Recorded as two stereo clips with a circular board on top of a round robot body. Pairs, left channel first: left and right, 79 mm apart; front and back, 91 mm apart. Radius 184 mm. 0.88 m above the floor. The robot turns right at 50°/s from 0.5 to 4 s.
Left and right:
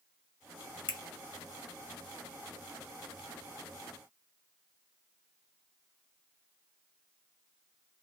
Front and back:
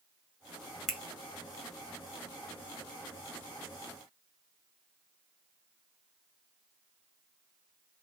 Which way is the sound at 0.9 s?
85° left.